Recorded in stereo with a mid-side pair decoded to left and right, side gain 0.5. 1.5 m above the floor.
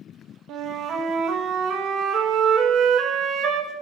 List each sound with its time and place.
0.5 s a flute: 70° right, 1.0 m